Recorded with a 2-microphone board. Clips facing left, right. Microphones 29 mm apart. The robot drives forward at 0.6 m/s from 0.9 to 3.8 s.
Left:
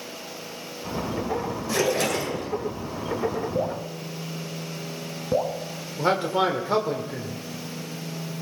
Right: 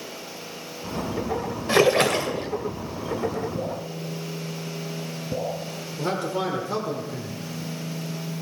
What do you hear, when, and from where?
1.7 s a splash: 50° right (ahead or behind), 1.9 m; by 2.5 s 55° right (ahead or behind), 1.8 m
3.5 s dripping: 55° left (ahead or behind), 1.8 m; by 5.5 s 60° left (ahead or behind), 1.8 m
6.0 s a man speaking: 35° left (ahead or behind), 1.6 m